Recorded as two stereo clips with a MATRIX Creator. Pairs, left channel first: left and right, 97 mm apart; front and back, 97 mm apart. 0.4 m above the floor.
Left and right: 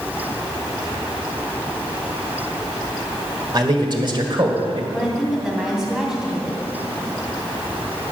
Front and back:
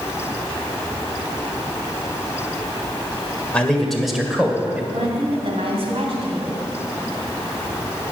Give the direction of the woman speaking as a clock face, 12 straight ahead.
6 o'clock.